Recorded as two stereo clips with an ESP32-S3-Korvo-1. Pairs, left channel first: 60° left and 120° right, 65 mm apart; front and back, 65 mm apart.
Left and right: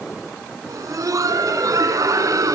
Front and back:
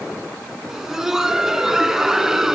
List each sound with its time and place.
0.7 s laughter: 100° right, 3.5 m